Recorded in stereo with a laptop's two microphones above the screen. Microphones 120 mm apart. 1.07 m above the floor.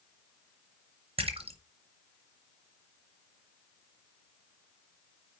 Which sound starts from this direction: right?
A splash, at 1.2 s.